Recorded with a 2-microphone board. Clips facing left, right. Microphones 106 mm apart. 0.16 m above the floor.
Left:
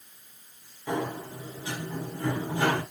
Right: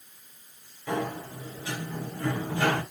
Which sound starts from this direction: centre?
A sliding door, at 0.9 s.